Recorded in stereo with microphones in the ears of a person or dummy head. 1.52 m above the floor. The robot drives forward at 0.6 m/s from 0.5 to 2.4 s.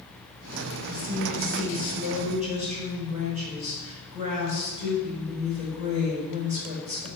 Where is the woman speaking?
40° right (ahead or behind), 6 m; by 7.1 s 35° right (ahead or behind), 6.5 m.